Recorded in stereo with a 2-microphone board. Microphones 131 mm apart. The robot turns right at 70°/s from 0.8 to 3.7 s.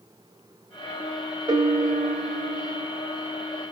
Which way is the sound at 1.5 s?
135° right.